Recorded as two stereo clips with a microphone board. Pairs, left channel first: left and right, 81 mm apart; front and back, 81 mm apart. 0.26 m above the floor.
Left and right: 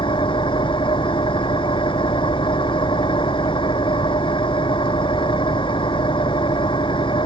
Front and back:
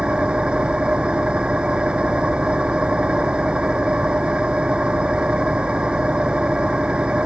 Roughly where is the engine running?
Left.